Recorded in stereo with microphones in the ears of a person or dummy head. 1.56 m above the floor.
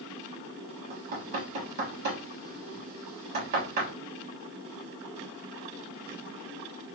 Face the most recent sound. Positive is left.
turn(degrees=-55)  # may be behind; listen again after turning